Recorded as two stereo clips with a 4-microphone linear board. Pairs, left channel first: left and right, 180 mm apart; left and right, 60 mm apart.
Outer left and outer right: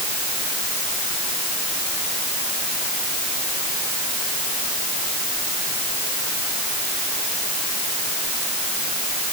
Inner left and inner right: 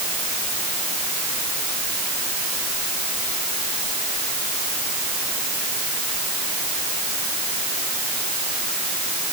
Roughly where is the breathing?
No breathing in this recording.